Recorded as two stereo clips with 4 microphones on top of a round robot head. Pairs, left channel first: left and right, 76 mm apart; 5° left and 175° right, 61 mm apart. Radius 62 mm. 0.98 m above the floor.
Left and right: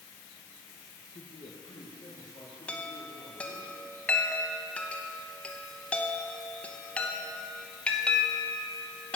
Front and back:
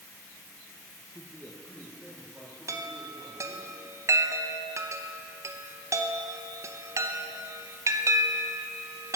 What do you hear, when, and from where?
1.1 s a man speaking: 95° left, 0.8 m; by 3.7 s 85° left, 4 m
2.7 s a chime: 165° left, 0.7 m